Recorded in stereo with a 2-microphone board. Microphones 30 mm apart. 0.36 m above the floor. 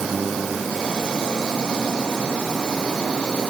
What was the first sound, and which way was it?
Only background noise.